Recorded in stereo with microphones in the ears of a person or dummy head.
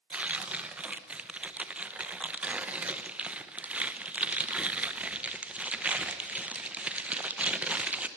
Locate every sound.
0.1 s tearing paper: 5° right (ahead or behind), 1.0 m